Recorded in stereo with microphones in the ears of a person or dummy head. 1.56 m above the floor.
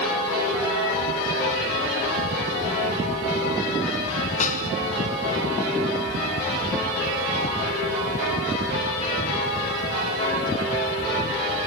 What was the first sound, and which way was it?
A snare drum, 40° left (ahead or behind).